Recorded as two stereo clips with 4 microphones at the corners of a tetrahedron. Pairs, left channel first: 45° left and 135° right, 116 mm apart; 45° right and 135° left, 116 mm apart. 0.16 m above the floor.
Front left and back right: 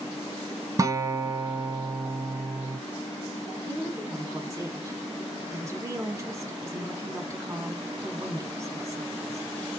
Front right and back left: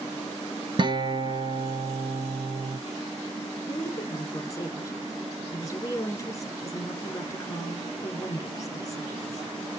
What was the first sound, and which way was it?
A guitar, 170° left.